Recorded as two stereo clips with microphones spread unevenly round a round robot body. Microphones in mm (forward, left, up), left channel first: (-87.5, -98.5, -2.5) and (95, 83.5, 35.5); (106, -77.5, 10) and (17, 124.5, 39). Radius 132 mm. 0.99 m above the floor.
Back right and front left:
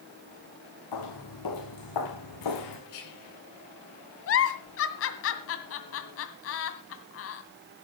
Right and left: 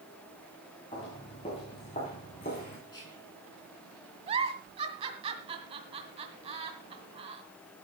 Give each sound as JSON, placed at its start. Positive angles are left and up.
{"t": 0.9, "sound": "footsteps", "azimuth_deg": -140, "distance_m": 6.0}
{"t": 2.9, "sound": "whispering", "azimuth_deg": -140, "distance_m": 10.0}
{"t": 4.3, "sound": "a giggle", "azimuth_deg": 180, "distance_m": 1.8}